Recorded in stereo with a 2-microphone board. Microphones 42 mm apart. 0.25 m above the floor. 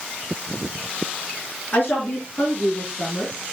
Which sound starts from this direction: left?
A woman speaking, at 1.7 s.